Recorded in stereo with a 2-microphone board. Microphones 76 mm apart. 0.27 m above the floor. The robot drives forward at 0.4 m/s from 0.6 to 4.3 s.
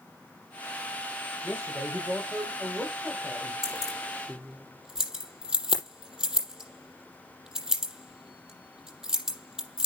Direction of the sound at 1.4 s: 35° right (ahead or behind).